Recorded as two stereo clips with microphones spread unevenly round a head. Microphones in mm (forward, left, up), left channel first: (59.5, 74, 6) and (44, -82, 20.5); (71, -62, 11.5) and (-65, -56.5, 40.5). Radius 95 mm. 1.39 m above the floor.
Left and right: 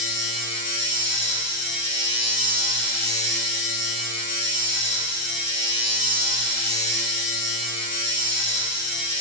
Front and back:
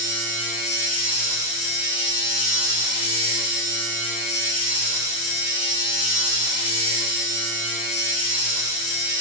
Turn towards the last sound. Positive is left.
turn(degrees=75)